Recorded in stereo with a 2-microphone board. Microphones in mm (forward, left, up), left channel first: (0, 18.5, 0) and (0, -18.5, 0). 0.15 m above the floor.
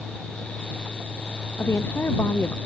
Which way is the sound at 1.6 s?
80° left.